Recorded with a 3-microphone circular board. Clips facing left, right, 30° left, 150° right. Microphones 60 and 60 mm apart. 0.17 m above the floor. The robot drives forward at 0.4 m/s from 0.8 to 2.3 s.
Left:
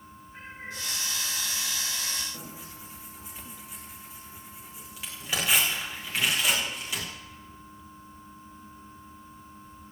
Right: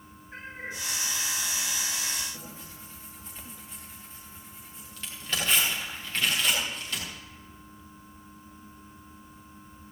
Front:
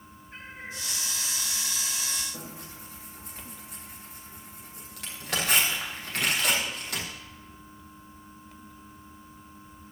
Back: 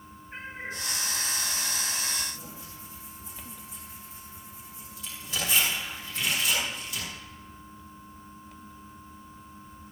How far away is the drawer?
No drawer in this recording.